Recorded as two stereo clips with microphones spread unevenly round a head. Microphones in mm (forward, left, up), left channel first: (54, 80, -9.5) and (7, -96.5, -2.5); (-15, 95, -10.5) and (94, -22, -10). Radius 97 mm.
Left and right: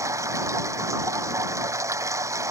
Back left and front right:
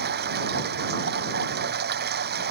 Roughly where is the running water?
Ahead right.